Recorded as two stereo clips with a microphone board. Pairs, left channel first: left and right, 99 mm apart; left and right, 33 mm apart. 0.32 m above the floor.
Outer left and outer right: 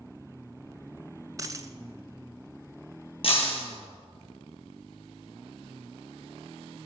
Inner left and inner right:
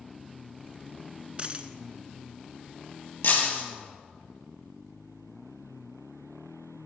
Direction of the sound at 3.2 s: 60° left (ahead or behind).